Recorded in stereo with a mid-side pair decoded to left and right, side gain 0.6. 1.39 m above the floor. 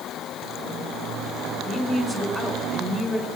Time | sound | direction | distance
1.6 | a woman speaking | 5° left | 3.5 m